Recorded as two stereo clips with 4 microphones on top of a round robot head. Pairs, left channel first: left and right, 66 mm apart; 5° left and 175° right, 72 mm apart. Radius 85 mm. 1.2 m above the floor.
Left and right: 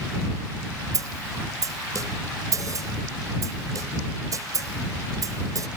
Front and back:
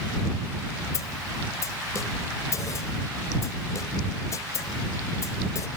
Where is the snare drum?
50° right.